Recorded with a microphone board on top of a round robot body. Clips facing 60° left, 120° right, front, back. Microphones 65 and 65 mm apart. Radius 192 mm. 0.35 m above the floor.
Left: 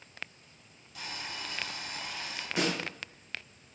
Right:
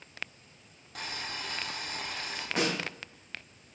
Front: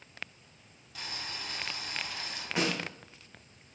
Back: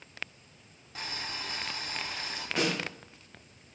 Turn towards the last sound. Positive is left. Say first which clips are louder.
# right 1 dB, back 1 dB
turn(degrees=-70)